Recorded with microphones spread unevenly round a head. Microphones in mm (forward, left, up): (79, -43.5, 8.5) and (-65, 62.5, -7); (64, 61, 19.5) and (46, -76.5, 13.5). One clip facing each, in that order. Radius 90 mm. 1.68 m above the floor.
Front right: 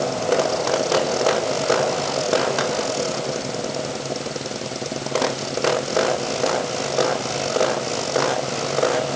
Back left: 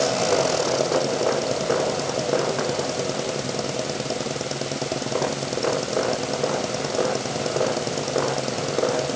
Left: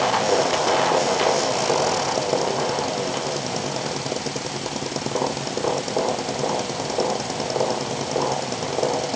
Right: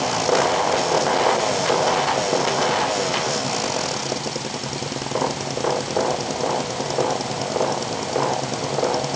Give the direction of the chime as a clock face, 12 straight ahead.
I don't hear a chime.